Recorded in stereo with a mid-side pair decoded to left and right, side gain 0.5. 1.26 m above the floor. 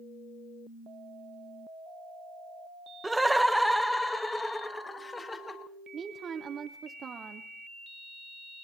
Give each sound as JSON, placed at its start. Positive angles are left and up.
{"t": 3.0, "sound": "laughter", "azimuth_deg": -10, "distance_m": 1.0}
{"t": 5.9, "sound": "a woman speaking", "azimuth_deg": -45, "distance_m": 0.7}